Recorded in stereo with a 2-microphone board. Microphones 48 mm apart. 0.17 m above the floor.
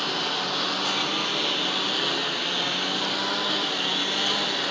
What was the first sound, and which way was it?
A lawn mower, centre (ahead or behind).